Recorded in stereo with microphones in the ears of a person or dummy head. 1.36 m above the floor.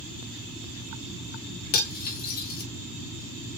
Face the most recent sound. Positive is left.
turn(degrees=45)  # may be behind; listen again after turning